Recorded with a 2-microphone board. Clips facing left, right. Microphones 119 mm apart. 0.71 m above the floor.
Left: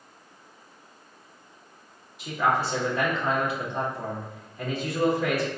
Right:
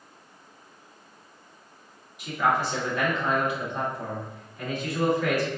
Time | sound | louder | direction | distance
2.2 | a man speaking | even | 30° left (ahead or behind) | 1.7 m